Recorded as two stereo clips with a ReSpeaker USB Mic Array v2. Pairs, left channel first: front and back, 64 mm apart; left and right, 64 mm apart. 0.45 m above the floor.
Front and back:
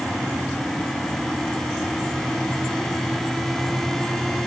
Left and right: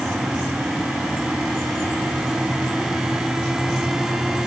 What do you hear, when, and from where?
Only background noise.